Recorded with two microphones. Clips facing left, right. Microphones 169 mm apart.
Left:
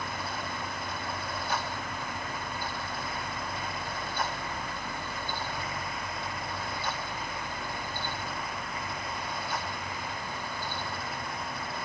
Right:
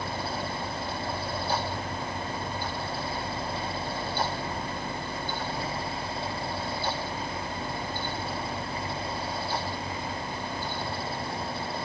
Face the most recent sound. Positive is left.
No sound to turn to.